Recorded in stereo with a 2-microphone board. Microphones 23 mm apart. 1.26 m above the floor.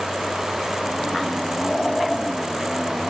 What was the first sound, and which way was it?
Only background noise.